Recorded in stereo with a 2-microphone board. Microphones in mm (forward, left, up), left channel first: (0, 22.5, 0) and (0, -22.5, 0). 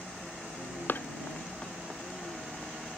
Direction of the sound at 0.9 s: 45° left (ahead or behind).